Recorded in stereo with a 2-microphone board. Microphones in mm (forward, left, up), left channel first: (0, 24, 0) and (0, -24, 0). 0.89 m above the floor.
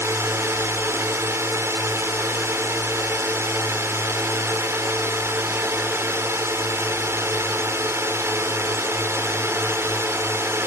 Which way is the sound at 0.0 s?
65° right (ahead or behind).